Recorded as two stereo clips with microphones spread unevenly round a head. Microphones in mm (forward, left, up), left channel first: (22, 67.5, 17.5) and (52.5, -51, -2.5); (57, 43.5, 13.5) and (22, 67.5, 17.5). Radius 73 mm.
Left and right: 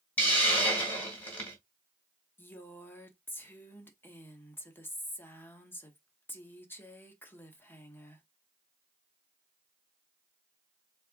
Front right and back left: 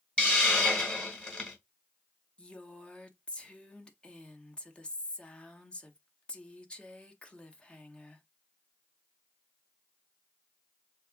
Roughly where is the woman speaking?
Ahead left.